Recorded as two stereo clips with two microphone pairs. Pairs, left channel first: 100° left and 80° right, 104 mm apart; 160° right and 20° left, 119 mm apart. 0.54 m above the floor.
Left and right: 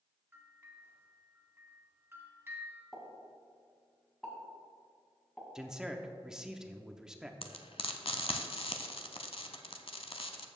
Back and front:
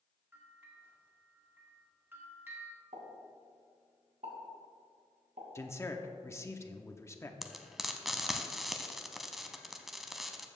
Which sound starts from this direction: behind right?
A man speaking, at 5.5 s.